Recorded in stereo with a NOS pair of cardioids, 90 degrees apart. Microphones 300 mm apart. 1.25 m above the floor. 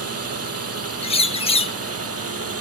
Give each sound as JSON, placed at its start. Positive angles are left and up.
{"t": 0.0, "sound": "a drone", "azimuth_deg": -55}
{"t": 1.0, "sound": "a bird", "azimuth_deg": 20}